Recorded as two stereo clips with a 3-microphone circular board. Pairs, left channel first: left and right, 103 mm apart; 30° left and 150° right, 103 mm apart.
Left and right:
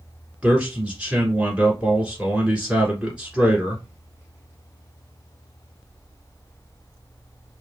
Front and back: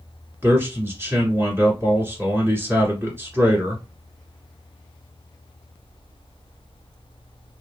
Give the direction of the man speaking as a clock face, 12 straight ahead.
5 o'clock.